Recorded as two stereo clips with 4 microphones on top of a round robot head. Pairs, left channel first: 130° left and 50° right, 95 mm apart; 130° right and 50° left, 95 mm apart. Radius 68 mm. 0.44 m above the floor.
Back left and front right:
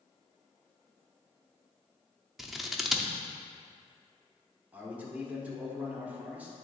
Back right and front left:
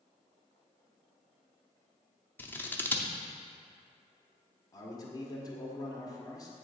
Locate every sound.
2.4 s scissors: 135° right, 0.7 m
4.7 s a man speaking: 115° right, 1.4 m